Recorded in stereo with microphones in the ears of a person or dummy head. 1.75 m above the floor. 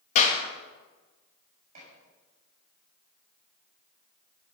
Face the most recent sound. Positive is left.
turn(degrees=-40)  # may be behind; listen again after turning